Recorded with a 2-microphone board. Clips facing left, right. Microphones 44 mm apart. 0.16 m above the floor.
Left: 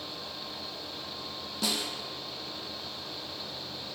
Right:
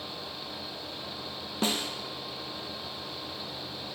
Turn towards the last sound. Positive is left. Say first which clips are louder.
# right 3 dB
turn(degrees=-35)  # may be behind; listen again after turning